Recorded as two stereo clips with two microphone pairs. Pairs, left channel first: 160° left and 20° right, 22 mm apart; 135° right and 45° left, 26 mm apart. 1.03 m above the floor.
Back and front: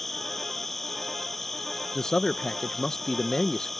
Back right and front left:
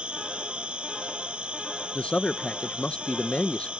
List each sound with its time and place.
0.0 s an insect: 85° left
1.9 s a man speaking: 150° right